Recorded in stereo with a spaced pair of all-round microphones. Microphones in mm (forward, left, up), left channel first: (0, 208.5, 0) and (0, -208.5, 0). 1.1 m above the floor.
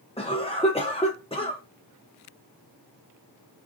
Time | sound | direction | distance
0.2 | a cough | 15° left (ahead or behind) | 0.5 m